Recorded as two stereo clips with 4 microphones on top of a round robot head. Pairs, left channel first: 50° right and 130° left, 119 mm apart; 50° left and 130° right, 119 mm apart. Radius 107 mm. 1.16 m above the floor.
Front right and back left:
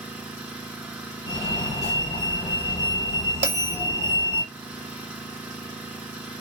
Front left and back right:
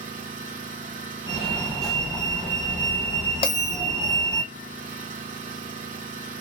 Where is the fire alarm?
35° right, 2.5 m.